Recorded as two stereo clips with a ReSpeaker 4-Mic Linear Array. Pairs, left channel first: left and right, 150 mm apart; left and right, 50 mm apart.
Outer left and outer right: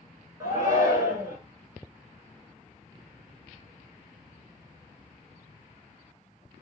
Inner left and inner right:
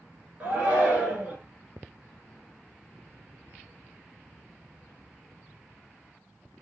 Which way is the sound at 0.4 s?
25° right (ahead or behind).